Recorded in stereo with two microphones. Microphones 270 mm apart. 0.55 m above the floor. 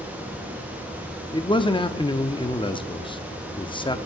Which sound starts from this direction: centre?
A man speaking, at 1.3 s.